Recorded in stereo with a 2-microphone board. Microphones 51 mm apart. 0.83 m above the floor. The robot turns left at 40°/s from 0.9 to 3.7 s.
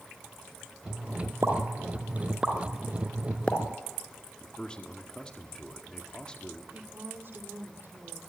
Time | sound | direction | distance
1.4 | a pop | 55° right (ahead or behind) | 2.5 m
4.4 | a man speaking | 15° left (ahead or behind) | 1.7 m
6.7 | a woman speaking | 45° right (ahead or behind) | 2.5 m